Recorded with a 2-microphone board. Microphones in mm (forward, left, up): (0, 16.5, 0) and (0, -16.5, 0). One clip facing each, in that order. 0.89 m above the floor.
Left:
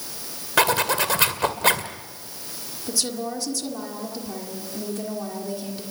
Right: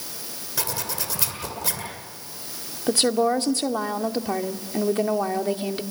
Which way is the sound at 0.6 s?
60° left (ahead or behind).